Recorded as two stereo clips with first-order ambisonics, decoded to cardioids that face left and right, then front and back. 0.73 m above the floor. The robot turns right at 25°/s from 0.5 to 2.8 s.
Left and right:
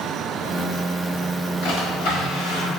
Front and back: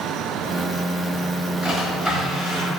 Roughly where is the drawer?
Left.